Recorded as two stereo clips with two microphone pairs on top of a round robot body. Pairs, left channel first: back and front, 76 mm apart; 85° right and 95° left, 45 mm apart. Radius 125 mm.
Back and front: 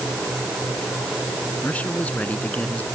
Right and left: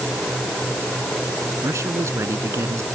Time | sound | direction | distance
1.6 | a man speaking | 105° left | ?